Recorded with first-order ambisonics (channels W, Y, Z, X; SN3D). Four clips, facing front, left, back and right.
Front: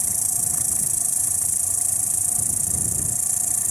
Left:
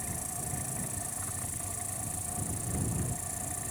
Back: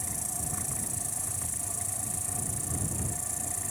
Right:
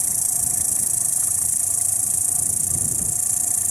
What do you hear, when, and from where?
0.0 s an insect: 55° right